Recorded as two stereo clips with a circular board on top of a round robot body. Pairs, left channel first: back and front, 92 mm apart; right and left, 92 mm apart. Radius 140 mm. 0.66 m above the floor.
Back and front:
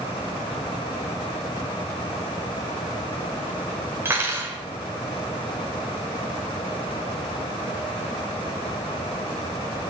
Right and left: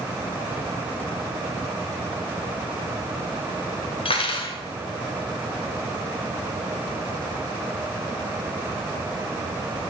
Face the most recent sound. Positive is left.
turn(degrees=-65)